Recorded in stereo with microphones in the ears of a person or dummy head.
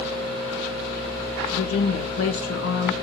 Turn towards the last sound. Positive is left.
turn(degrees=70)  # may be behind; listen again after turning